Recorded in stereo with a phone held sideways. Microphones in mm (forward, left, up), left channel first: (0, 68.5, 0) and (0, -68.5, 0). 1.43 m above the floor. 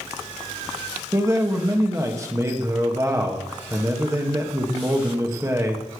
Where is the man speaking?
25° right (ahead or behind), 1.9 m.